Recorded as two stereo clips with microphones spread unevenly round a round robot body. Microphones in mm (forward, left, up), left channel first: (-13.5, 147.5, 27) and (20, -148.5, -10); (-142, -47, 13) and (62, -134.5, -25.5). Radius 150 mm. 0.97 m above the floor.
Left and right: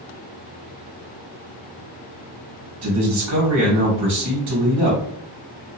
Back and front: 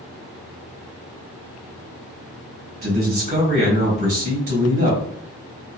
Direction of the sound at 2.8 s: 60° right.